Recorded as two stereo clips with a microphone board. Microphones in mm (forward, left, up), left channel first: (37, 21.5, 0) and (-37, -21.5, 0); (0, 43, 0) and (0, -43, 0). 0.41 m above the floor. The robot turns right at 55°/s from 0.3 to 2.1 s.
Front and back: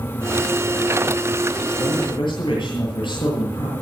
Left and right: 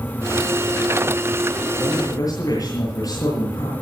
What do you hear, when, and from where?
1.8 s a man speaking: 30° left, 9 m; by 3.7 s 45° left, 9 m